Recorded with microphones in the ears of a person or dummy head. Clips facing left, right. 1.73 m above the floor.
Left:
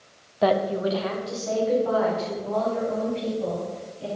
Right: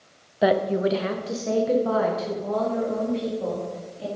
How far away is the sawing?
No sawing in this recording.